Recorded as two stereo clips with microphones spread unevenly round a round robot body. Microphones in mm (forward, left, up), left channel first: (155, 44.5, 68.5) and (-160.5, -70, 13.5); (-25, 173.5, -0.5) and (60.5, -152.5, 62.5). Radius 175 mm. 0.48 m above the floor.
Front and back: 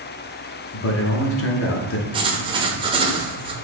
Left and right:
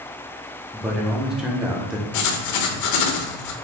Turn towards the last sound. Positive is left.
turn(degrees=130)